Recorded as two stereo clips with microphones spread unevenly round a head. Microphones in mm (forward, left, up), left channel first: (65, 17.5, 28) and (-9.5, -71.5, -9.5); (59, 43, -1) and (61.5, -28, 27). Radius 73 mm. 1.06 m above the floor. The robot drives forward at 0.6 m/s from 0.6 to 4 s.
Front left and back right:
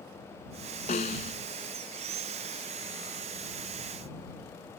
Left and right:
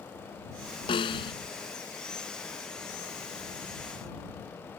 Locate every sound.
0.9 s a snare drum: 90° left; by 1.3 s 95° left